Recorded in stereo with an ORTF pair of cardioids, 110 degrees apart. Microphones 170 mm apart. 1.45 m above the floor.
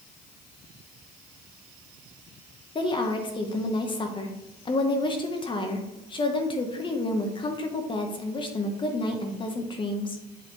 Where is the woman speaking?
30° left, 1.1 m.